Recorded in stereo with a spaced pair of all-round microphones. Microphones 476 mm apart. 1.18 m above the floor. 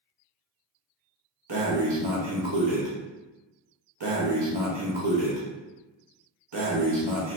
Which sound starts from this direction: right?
Breathing, at 1.5 s.